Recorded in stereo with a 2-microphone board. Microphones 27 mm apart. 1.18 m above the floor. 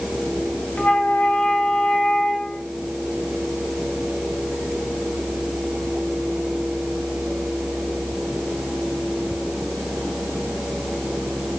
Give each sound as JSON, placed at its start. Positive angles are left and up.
{"t": 0.8, "sound": "a flute", "side_deg": 80, "distance_m": 1.4}